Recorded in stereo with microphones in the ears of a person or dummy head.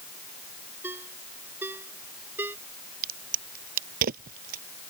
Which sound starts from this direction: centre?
A ringtone, at 0.8 s.